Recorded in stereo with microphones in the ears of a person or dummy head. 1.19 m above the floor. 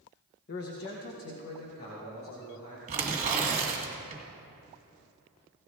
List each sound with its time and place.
0.5 s a man speaking: 55° left (ahead or behind), 0.8 m; by 2.8 s 45° left (ahead or behind), 2.5 m
2.9 s tearing paper: 40° right (ahead or behind), 1.9 m